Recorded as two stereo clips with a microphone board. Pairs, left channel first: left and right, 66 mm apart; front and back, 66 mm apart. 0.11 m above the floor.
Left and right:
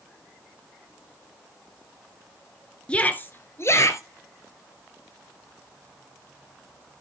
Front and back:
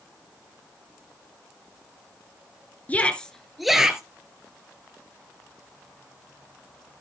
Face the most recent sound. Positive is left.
turn(degrees=105)